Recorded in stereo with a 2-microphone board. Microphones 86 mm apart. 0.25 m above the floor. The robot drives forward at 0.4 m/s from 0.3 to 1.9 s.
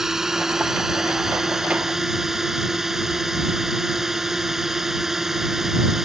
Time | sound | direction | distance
0.0 | a drone | 5° right (ahead or behind) | ?